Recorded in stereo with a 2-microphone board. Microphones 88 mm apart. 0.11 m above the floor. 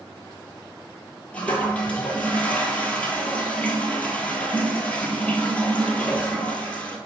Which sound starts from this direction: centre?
A toilet flushing, at 1.3 s.